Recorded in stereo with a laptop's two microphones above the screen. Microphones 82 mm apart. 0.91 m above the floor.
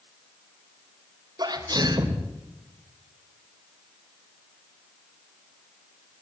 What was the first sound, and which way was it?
A sneeze, 55° right (ahead or behind).